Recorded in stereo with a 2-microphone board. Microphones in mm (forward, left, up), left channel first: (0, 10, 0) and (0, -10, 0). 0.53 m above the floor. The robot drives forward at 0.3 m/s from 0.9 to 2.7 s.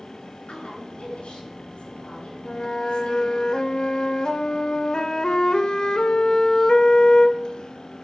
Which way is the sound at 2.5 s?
50° left (ahead or behind).